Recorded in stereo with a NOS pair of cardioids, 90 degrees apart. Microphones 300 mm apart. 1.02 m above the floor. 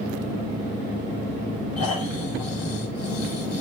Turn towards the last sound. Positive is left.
turn(degrees=55)